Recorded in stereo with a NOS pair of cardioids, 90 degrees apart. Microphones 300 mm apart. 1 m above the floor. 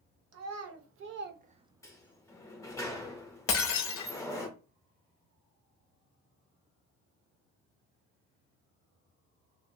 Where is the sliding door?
10° left, 0.8 m.